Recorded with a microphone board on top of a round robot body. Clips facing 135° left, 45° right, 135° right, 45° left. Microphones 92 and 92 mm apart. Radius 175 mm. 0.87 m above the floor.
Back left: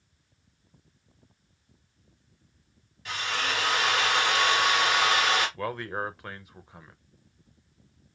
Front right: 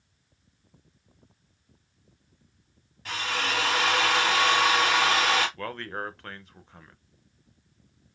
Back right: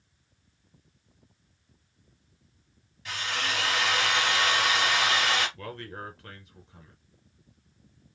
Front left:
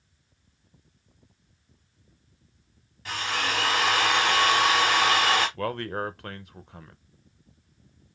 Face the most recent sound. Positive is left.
turn(degrees=55)